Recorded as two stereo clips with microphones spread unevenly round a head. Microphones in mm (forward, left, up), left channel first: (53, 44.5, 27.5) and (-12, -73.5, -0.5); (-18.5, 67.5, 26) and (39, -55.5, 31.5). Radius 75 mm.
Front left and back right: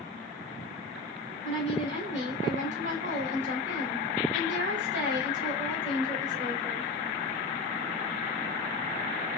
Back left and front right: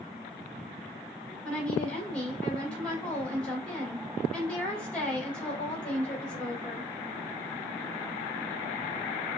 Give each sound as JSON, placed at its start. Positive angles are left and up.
{"t": 1.4, "sound": "a woman speaking", "azimuth_deg": -160, "distance_m": 3.0}